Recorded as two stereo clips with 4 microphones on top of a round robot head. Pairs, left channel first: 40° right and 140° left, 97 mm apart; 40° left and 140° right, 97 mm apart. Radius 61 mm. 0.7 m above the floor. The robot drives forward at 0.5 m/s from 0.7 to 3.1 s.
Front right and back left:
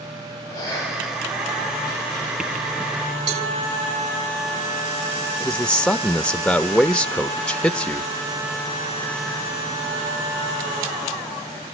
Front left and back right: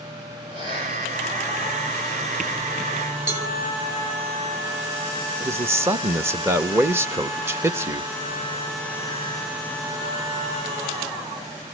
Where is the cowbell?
150° left, 4 m.